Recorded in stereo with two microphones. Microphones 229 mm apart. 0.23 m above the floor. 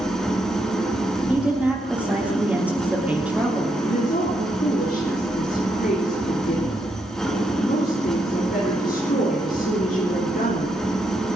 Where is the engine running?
5° left (ahead or behind), 3 m.